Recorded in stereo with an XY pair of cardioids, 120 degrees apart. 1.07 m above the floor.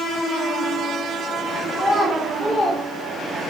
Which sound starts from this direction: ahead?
A child speaking, at 1.7 s.